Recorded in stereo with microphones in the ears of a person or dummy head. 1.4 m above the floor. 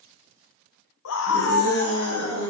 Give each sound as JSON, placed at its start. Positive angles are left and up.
{"t": 1.1, "sound": "a scream", "side_deg": 75, "distance_m": 0.5}